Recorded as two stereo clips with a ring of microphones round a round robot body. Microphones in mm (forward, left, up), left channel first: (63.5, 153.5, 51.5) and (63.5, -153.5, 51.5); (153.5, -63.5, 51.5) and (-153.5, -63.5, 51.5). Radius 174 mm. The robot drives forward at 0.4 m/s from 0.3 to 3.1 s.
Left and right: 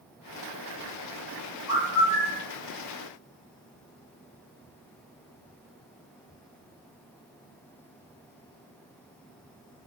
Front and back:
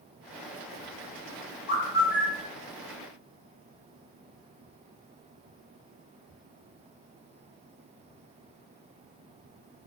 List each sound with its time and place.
1.7 s a bird: 60° right, 2.0 m; by 2.5 s 70° right, 1.9 m